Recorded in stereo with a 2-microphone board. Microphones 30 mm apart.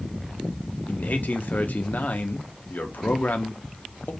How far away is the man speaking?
About 0.6 m.